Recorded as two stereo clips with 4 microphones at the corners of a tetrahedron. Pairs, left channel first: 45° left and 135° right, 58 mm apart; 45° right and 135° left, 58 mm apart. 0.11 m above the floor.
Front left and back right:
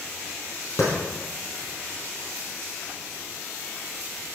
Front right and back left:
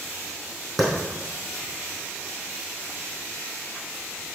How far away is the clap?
About 4 m.